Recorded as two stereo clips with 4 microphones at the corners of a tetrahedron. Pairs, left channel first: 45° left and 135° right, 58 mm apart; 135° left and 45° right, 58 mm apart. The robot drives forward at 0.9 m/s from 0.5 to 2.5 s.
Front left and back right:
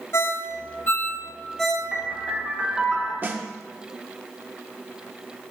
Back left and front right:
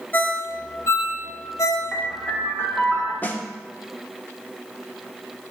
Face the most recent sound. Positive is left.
turn(degrees=-175)